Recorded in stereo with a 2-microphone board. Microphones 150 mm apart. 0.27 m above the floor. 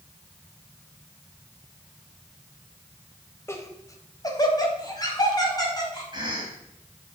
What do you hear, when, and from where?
3.5 s laughter: 20° left (ahead or behind), 0.9 m; by 6.0 s 25° left (ahead or behind), 2.5 m
6.1 s a cough: 30° right (ahead or behind), 2.5 m